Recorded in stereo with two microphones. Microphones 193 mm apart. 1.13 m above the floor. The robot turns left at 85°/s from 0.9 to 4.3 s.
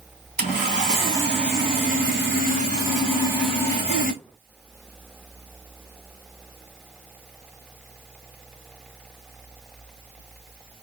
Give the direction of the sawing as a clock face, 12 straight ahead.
11 o'clock.